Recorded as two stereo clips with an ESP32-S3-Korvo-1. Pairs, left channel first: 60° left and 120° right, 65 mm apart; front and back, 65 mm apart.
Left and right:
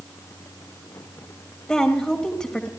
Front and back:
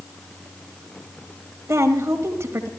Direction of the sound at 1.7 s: 135° left.